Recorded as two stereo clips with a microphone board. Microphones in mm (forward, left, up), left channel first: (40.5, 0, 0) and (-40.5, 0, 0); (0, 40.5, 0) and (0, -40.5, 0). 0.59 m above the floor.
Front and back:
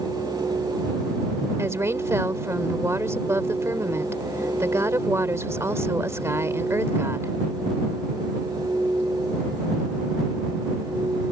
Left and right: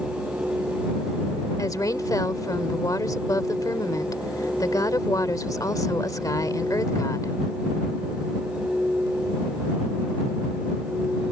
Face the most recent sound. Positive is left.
turn(degrees=130)